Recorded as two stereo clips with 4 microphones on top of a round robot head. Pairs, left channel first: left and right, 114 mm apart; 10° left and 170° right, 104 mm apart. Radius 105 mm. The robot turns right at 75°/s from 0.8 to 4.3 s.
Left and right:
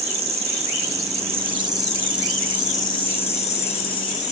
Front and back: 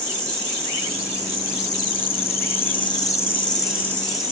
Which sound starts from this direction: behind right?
An insect, at 0.0 s.